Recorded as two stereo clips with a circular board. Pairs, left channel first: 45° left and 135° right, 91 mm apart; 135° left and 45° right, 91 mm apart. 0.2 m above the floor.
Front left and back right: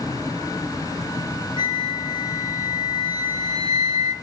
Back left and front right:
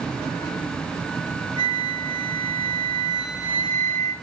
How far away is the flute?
About 1.8 m.